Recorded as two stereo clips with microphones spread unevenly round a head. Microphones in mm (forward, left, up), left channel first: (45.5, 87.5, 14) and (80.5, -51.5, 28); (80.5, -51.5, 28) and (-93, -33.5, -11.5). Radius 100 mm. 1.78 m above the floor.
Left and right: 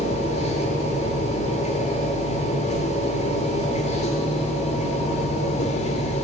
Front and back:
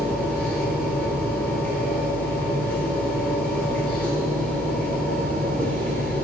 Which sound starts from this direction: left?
A machine running, at 0.0 s.